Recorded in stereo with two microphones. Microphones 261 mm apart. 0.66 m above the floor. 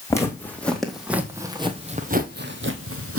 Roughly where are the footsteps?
Centre.